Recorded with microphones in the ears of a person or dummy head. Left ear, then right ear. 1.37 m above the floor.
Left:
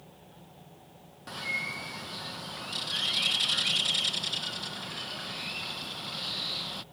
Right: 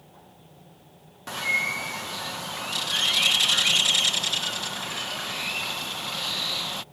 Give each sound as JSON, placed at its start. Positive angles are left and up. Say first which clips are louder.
{"t": 1.3, "sound": "a bird", "louder": "right 8 dB", "side_deg": -25}